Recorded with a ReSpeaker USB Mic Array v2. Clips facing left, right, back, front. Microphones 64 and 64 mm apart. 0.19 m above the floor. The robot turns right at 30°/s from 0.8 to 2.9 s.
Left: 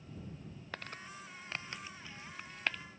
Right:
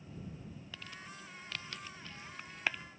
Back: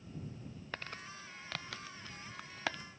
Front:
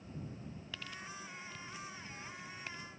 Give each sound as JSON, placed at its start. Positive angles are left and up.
{"t": 0.7, "sound": "crumpling", "azimuth_deg": 130}